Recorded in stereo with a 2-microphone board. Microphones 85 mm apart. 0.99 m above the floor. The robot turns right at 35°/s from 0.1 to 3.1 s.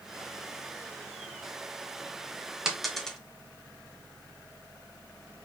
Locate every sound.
2.6 s a dropped coin: 5° right (ahead or behind), 0.9 m; by 3.2 s 10° left (ahead or behind), 0.9 m